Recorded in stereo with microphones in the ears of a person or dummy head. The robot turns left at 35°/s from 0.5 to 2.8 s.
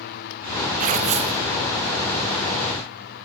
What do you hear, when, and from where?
0.8 s tearing paper: 50° right (ahead or behind), 1.7 m; by 1.4 s 30° right (ahead or behind), 1.7 m